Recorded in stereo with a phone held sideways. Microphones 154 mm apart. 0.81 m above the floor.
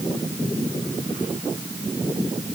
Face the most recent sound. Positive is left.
No sound to turn to.